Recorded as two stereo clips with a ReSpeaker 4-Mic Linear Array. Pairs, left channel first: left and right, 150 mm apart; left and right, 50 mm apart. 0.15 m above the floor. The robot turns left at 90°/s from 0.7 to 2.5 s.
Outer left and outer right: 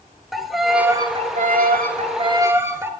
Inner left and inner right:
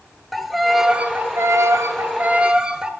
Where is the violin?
Straight ahead, 0.6 m; by 2.9 s 165° right, 0.6 m.